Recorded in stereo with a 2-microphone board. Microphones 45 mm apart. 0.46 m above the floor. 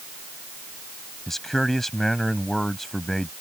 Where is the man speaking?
5° left (ahead or behind).